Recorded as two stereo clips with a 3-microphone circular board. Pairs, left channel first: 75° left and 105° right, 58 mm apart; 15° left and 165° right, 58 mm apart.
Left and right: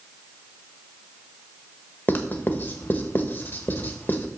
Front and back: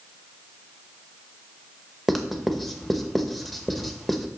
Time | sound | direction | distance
2.1 | writing | 105° left | 1.0 m